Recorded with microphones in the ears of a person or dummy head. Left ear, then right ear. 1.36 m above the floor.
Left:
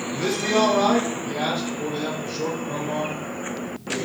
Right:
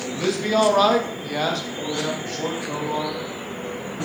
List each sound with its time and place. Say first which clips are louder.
0.1 s a man speaking: right 1 dB; 10° left (ahead or behind), 0.8 m; by 3.2 s 60° right (ahead or behind), 1.9 m